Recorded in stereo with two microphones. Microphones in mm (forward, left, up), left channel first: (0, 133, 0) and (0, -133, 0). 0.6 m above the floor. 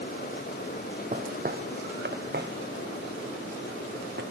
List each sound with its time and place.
1.1 s footsteps: 30° right (ahead or behind), 0.9 m; by 4.2 s 40° right (ahead or behind), 2.5 m